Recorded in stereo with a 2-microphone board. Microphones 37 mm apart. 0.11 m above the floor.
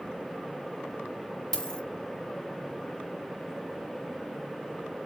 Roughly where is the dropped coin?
Centre.